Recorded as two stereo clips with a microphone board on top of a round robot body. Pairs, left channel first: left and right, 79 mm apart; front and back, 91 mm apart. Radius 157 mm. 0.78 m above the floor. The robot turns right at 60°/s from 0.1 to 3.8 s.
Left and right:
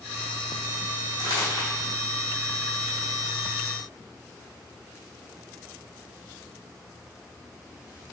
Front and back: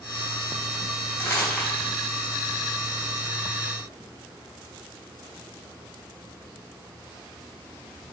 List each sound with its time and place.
1.2 s crumpling: 55° left, 3.5 m; by 1.9 s 95° left, 3.5 m